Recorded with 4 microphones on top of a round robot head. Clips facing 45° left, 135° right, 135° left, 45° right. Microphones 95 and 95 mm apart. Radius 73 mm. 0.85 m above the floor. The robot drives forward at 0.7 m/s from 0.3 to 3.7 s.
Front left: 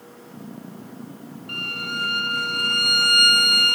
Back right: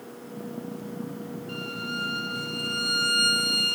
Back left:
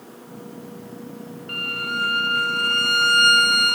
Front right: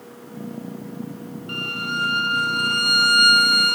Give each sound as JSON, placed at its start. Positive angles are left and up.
{"t": 1.5, "sound": "a violin", "azimuth_deg": 20}